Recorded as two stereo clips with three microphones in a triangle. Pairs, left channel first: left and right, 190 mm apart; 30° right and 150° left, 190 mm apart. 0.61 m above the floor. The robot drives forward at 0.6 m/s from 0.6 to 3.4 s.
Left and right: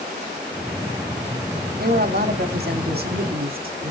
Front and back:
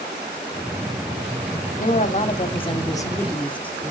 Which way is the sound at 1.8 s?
65° right.